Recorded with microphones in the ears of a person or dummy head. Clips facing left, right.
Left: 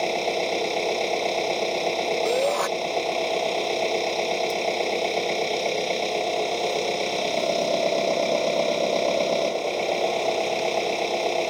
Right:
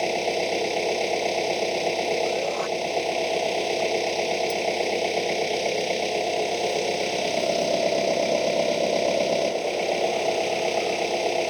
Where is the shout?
70° left (ahead or behind).